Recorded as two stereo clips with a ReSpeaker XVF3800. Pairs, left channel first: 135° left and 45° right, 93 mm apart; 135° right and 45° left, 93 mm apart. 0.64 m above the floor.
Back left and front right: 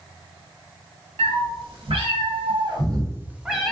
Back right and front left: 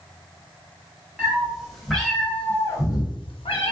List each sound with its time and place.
1.2 s a cat meowing: 35° right, 1.0 m; by 3.7 s 140° right, 0.6 m